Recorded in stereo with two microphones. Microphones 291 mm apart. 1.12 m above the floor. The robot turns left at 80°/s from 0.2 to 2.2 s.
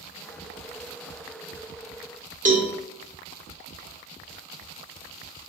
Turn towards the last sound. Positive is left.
turn(degrees=-25)  # may be behind; listen again after turning